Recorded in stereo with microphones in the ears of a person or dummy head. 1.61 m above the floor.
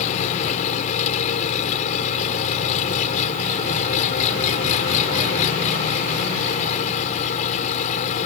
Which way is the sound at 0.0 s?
45° left (ahead or behind).